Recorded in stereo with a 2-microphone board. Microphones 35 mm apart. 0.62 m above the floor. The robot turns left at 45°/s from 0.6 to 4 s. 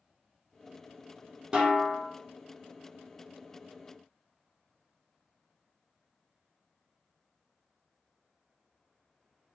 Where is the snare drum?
25° right (ahead or behind), 1.2 m; by 2.0 s 5° right (ahead or behind), 1.2 m.